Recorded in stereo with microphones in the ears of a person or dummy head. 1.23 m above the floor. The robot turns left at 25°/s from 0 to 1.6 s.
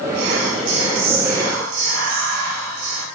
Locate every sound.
0.1 s whispering: 60° right, 0.8 m; by 3.0 s 100° right, 0.8 m